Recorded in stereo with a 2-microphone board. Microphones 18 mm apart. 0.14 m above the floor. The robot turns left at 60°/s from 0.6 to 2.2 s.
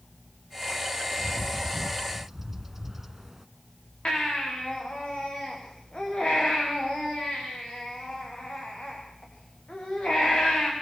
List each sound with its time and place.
1.2 s a bird: 10° left (ahead or behind), 1.1 m; by 3.5 s 20° right (ahead or behind), 1.1 m
4.0 s a baby crying: 60° left (ahead or behind), 8.5 m